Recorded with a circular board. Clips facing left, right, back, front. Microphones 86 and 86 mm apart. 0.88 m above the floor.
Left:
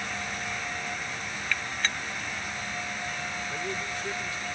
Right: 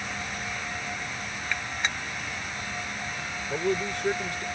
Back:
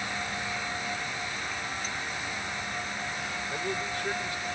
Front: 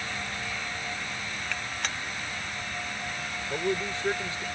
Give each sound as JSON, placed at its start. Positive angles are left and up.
{"t": 1.5, "sound": "a gunshot", "azimuth_deg": -20}
{"t": 3.5, "sound": "a man speaking", "azimuth_deg": -65}